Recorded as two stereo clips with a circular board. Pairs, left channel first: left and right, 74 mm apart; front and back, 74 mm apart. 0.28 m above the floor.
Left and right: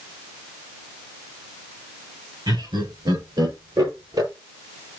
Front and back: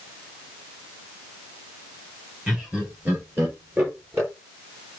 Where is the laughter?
105° right, 4.5 m; by 4.3 s 125° right, 6 m.